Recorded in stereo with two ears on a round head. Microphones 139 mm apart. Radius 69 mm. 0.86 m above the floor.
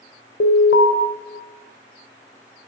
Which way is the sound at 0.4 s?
80° left.